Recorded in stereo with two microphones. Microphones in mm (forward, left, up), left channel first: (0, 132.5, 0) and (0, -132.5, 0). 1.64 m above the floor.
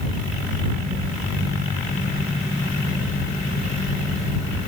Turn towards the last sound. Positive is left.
No sound to turn to.